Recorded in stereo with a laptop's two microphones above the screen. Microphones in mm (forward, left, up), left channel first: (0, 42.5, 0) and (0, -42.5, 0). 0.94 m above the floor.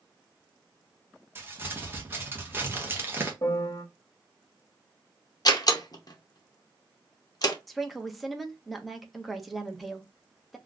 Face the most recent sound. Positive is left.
turn(degrees=0)  # may be behind; listen again after turning